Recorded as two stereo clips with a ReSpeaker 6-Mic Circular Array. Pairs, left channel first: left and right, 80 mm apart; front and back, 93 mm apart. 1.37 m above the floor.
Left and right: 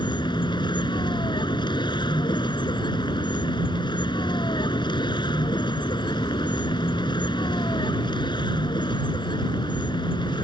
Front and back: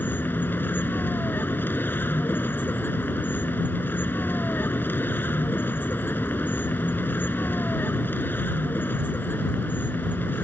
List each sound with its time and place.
0.0 s a vehicle: 70° left